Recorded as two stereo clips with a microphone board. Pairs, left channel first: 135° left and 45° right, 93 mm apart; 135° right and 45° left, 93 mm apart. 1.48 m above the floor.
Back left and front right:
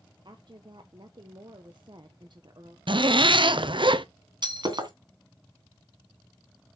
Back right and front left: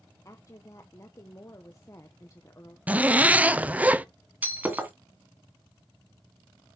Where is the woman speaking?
80° right, 1.1 m.